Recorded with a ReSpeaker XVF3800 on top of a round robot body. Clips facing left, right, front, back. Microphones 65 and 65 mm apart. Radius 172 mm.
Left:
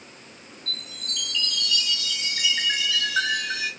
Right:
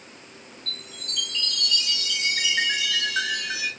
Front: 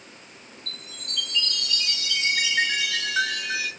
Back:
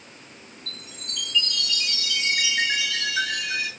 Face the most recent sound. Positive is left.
turn(degrees=-50)